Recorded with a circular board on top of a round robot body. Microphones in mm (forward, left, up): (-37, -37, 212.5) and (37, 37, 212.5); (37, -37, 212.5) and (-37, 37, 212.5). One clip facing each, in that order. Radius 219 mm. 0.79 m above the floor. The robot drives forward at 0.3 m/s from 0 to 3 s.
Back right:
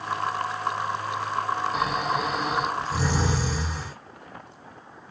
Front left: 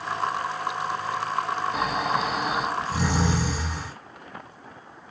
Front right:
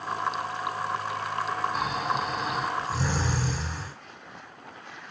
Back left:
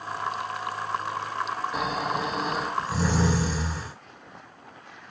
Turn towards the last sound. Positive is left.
turn(degrees=135)